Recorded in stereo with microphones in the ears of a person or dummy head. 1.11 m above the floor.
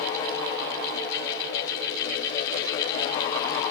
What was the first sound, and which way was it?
Only background noise.